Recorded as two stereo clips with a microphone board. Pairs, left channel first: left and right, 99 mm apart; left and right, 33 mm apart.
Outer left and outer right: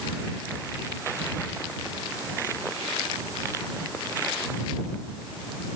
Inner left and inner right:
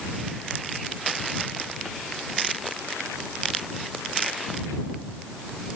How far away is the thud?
I don't hear a thud.